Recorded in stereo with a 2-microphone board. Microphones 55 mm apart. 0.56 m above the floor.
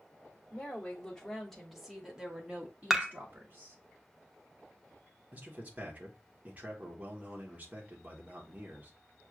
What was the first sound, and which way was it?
A woman speaking, 20° left (ahead or behind).